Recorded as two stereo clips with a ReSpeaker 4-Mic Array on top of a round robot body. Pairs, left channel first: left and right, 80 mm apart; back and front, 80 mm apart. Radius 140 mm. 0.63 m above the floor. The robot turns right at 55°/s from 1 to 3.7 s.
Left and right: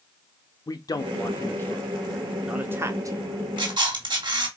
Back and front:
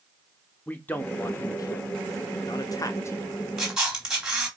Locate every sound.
0.7 s a man speaking: 115° left, 0.9 m; by 3.3 s 120° right, 0.9 m
3.6 s a camera shutter: 90° right, 3.5 m; by 4.5 s 80° right, 3.5 m